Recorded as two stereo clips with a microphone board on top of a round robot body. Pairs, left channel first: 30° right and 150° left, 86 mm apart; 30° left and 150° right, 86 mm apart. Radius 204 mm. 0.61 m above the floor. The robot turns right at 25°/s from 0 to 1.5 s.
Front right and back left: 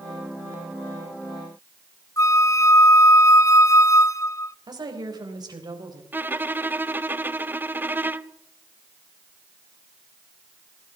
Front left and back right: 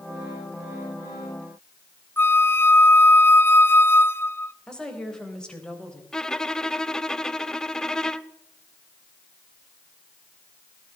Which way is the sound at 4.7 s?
110° left.